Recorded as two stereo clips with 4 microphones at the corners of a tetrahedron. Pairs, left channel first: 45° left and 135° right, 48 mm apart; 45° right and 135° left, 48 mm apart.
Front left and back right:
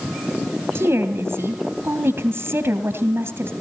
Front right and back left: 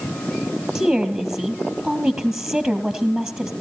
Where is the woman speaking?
160° right, 2.5 m.